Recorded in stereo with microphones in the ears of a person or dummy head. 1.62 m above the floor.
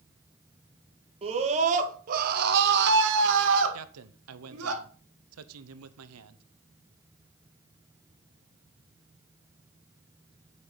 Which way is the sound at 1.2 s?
35° right (ahead or behind).